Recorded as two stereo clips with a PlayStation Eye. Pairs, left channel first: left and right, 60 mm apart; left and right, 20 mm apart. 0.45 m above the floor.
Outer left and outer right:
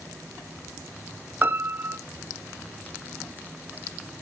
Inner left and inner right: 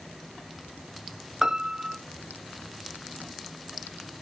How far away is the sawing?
No sawing in this recording.